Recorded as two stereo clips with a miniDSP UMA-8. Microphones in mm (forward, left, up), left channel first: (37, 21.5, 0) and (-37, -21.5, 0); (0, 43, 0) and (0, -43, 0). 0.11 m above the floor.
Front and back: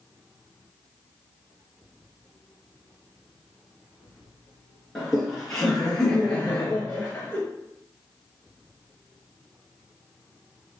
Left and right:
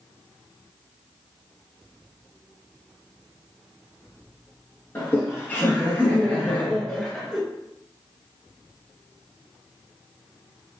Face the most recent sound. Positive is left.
turn(degrees=5)